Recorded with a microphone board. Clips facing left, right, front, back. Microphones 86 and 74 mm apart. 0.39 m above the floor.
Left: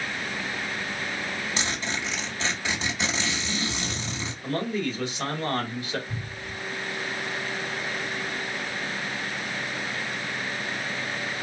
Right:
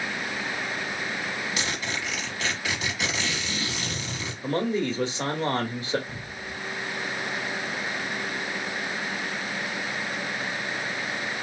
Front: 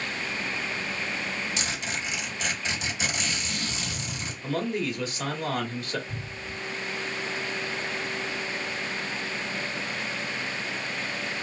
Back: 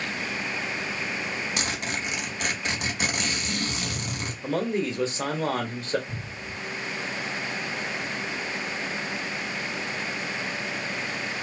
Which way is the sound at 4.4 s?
135° right.